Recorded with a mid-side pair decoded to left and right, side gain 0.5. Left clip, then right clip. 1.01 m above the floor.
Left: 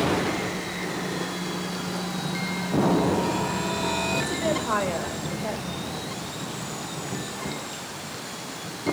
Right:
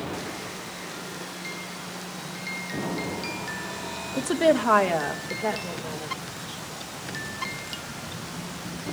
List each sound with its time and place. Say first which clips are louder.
4.2 s a woman speaking: right 4 dB; 65° right, 1.3 m; by 6.6 s 80° right, 5 m